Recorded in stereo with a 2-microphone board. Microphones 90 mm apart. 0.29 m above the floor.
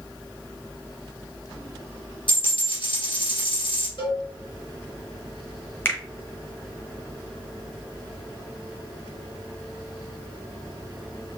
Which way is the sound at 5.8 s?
25° left (ahead or behind).